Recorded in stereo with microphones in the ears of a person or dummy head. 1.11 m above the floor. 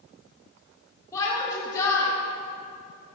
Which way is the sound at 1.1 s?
15° left (ahead or behind).